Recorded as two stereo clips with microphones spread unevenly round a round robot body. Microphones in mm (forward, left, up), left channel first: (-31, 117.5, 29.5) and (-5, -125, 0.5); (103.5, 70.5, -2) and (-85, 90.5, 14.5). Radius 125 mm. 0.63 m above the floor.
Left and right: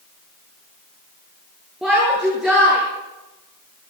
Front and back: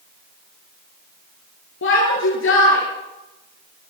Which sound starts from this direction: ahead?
A shout, at 1.8 s.